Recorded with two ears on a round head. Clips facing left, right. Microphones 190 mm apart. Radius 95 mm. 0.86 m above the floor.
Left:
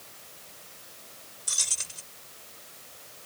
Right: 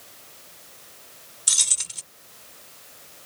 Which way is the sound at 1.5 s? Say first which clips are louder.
Right 2 dB; 80° right.